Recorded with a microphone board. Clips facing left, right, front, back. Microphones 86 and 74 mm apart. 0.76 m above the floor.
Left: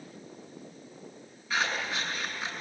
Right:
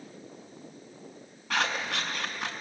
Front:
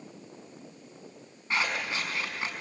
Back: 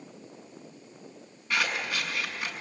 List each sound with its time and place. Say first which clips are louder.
1.5 s scissors: right 1 dB, back 1 dB; 60° right, 5.5 m